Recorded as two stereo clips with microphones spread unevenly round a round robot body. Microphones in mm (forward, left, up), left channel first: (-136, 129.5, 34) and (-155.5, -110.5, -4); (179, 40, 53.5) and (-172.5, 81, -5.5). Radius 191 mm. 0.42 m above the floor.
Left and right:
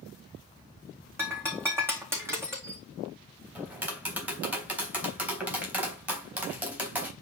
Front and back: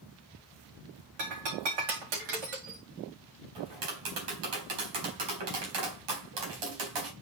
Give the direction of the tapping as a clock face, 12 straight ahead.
6 o'clock.